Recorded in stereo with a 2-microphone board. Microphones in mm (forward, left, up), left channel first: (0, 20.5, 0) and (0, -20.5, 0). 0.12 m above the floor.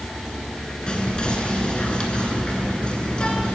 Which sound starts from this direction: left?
Whispering, at 0.9 s.